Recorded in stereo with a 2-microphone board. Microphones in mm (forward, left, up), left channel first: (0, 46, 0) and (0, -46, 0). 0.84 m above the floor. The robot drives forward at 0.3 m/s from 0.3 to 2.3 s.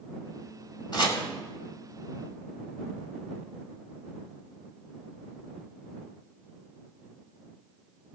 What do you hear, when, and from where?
0.9 s chopping: 50° left (ahead or behind), 1.9 m